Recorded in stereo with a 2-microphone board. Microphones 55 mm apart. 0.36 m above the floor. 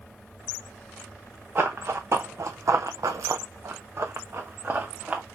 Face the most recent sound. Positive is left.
turn(degrees=-25)  # may be behind; listen again after turning